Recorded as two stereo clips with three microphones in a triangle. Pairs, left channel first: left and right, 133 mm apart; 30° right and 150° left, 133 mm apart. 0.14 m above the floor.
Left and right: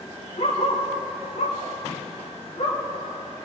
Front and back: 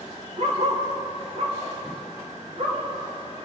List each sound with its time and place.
0.4 s a dog barking: 120° left, 6 m; by 2.8 s 115° left, 9 m